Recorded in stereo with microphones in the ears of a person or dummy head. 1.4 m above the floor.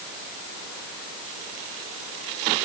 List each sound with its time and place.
Only background noise.